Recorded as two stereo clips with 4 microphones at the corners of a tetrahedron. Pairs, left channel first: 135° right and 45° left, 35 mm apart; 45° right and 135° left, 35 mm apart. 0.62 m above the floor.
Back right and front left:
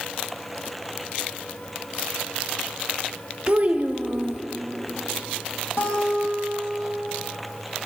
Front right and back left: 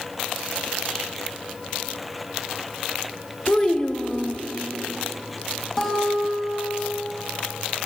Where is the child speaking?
10° left, 0.6 m.